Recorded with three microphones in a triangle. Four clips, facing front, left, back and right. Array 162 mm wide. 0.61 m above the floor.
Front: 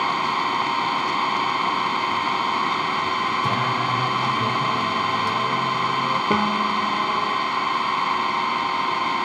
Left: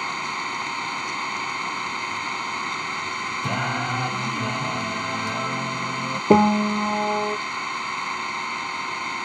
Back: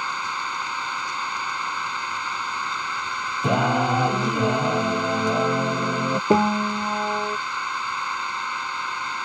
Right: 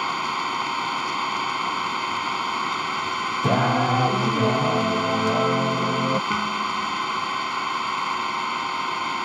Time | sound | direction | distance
0.0 | an engine running | 5° right | ?
3.4 | singing | 140° right | ?
6.3 | a piano | 110° left | ?